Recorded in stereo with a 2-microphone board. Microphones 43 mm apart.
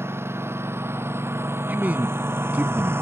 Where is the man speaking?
40° right (ahead or behind).